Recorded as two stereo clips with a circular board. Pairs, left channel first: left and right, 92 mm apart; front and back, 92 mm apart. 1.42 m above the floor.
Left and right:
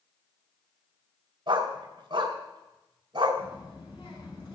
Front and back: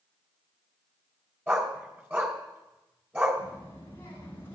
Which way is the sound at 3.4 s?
65° left.